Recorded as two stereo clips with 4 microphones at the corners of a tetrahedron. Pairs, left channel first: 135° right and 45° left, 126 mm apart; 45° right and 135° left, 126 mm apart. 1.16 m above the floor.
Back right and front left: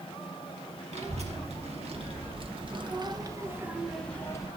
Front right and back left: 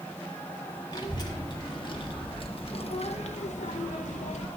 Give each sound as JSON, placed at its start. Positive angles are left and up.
{"t": 0.9, "sound": "a child speaking", "azimuth_deg": 10, "distance_m": 1.8}